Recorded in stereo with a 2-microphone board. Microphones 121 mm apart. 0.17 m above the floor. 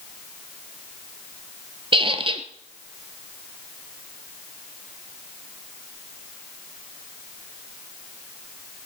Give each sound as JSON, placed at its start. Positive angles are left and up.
{"t": 1.9, "sound": "a squeak", "side_deg": -45, "distance_m": 1.0}